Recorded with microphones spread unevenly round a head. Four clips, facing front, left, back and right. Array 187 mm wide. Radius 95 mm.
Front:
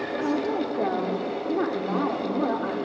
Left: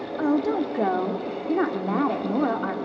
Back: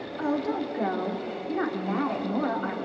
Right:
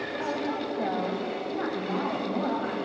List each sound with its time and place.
0.2 s a woman speaking: 65° left, 2.5 m